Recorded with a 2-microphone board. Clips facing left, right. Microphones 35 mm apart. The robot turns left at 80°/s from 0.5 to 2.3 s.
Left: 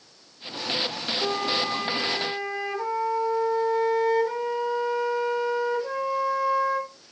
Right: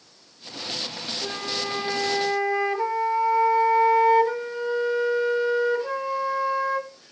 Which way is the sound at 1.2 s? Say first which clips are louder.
Left 4 dB; 55° left.